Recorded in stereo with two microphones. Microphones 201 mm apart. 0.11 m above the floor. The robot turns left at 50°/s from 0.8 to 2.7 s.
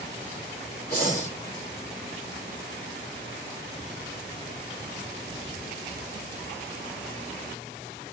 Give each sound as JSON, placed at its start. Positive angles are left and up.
{"t": 0.9, "sound": "breathing", "side_deg": 50, "distance_m": 4.0}